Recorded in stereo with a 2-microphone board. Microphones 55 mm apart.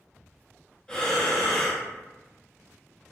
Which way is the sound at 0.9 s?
20° left (ahead or behind).